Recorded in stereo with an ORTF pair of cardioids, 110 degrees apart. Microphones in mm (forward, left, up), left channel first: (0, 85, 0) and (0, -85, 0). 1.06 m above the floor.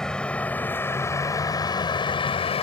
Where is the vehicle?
5° left; by 2.6 s 35° left.